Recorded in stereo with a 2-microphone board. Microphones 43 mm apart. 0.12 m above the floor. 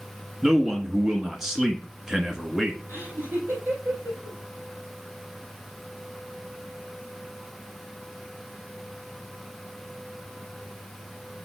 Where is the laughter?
75° right (ahead or behind), 3.5 m.